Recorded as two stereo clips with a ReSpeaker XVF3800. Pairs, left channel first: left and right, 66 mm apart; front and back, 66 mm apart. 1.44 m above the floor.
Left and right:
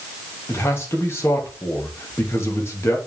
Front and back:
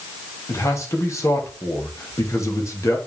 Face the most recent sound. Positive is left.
turn(degrees=40)